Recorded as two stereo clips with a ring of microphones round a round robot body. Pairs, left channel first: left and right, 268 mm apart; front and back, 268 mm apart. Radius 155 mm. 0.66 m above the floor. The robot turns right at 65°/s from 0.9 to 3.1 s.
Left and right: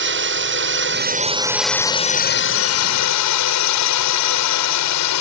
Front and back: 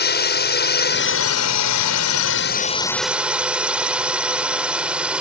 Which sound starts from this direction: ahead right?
A drone, at 0.0 s.